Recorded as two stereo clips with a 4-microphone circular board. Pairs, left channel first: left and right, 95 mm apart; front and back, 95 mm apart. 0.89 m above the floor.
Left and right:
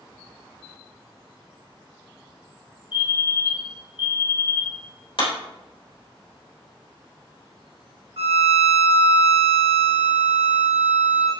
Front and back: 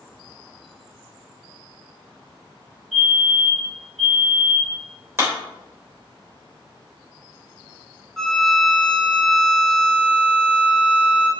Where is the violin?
90° right, 1.3 m.